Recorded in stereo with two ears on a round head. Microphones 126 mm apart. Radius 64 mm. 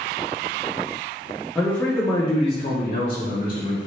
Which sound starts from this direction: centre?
A man speaking, at 1.6 s.